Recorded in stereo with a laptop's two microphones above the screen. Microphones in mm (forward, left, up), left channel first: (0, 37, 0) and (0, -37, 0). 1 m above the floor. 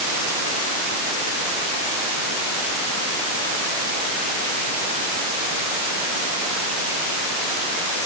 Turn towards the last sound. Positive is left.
No sound to turn to.